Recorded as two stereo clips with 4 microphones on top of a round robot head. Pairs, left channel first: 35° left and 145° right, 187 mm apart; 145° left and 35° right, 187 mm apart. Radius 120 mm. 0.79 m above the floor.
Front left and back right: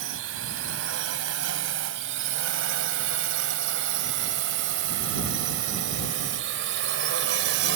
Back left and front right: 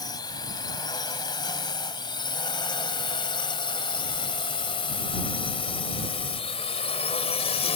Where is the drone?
150° right; by 7.8 s 160° right.